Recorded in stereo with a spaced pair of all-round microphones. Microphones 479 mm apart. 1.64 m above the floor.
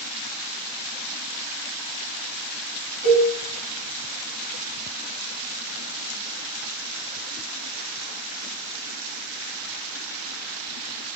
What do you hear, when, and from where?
3.0 s a cowbell: 65° right (ahead or behind), 1.7 m